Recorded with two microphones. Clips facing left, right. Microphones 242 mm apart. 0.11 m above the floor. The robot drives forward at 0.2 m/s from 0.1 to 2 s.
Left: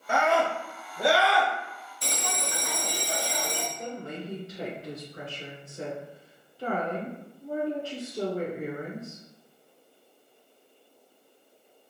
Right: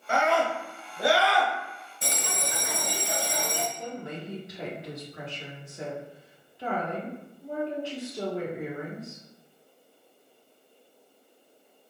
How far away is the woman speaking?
About 1.9 m.